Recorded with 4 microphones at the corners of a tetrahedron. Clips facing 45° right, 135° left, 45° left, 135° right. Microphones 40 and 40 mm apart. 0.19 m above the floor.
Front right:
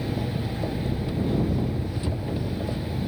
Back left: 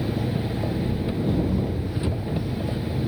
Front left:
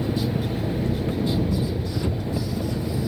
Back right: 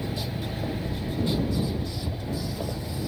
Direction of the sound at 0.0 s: 65° left.